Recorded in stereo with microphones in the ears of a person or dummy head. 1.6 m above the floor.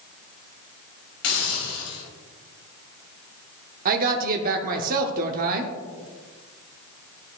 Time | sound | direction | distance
1.2 | a hiss | 85° left | 2.5 m
3.9 | a woman speaking | 45° right (ahead or behind) | 0.6 m